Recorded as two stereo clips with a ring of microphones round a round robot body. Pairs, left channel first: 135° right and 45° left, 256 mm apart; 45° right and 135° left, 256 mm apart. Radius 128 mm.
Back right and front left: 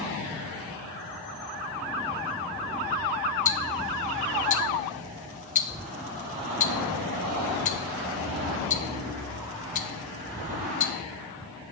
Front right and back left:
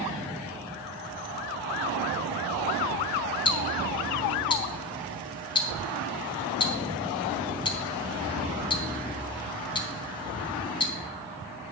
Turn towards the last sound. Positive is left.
turn(degrees=-100)